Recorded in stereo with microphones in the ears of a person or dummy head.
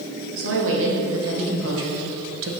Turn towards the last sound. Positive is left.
turn(degrees=-70)  # may be behind; listen again after turning